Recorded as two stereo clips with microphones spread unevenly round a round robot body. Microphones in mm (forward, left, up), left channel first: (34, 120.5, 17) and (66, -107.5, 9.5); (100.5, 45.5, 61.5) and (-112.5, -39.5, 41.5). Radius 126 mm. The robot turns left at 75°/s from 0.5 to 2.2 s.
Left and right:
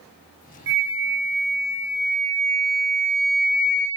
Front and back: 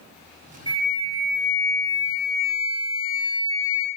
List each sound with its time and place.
0.7 s a flute: 95° right, 1.1 m; by 3.9 s 145° left, 1.1 m